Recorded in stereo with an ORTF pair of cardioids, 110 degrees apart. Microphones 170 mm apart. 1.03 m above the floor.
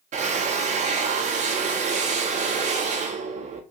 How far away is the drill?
About 1.0 m.